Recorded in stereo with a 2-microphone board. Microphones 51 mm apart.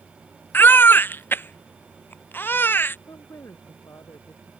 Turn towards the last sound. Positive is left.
turn(degrees=85)